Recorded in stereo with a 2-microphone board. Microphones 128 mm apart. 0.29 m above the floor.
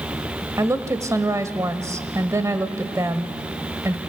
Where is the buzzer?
No buzzer in this recording.